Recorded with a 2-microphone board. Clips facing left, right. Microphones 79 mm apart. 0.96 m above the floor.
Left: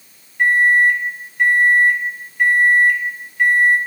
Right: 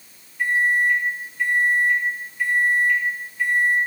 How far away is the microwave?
About 0.7 m.